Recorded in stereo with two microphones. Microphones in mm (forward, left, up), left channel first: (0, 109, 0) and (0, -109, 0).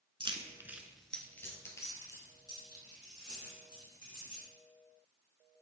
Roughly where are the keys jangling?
Right.